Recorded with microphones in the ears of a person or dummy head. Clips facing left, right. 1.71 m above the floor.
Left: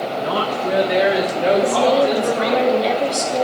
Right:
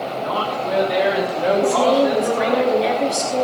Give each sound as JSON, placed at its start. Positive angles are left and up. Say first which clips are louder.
{"t": 0.2, "sound": "a woman speaking", "louder": "left 2 dB", "side_deg": 30, "distance_m": 1.9}
{"t": 1.6, "sound": "a woman speaking", "louder": "even", "side_deg": -45, "distance_m": 4.0}